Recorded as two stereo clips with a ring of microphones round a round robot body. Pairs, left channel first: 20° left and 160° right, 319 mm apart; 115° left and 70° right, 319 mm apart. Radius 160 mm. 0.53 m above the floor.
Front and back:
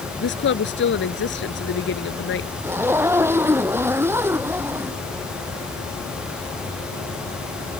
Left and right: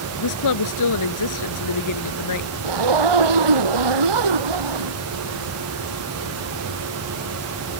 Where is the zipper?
75° right.